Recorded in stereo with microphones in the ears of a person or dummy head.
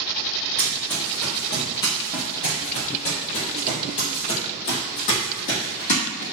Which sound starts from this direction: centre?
Running footsteps, at 0.6 s.